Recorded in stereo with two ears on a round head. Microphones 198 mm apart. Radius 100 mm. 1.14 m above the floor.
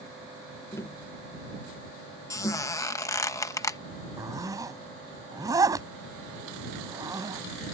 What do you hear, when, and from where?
0.7 s tapping: 15° left (ahead or behind)
2.3 s a squeak: 15° left (ahead or behind)
4.2 s a zipper: 15° right (ahead or behind)